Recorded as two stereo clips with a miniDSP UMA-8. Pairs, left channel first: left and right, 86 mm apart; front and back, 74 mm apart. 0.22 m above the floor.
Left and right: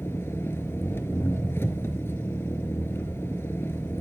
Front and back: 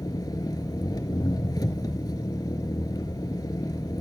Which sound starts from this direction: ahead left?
An engine running, at 0.0 s.